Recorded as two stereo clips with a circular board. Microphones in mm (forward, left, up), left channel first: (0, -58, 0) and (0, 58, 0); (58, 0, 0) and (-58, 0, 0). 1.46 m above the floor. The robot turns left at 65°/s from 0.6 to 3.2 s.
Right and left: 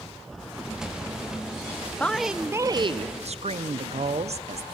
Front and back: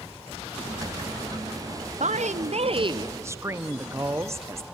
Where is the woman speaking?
170° right, 0.7 m; by 4.7 s 115° left, 0.7 m.